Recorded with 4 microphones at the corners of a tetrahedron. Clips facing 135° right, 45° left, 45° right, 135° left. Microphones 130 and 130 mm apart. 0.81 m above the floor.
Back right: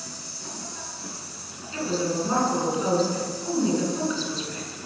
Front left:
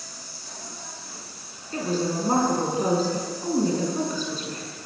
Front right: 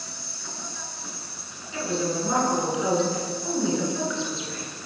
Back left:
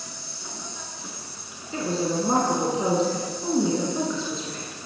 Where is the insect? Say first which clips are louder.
Back right 4 dB, even; 155° right, 5.5 m.